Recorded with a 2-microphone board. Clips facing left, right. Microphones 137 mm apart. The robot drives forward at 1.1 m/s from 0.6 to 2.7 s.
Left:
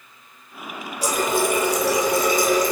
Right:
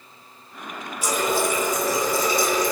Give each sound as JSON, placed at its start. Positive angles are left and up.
{"t": 1.0, "sound": "a running tap", "side_deg": 40, "distance_m": 1.2}